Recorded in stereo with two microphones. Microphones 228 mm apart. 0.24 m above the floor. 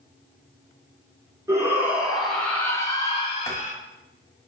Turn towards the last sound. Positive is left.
turn(degrees=15)  # may be behind; listen again after turning